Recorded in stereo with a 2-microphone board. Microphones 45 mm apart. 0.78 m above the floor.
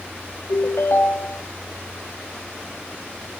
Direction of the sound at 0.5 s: 75° left (ahead or behind).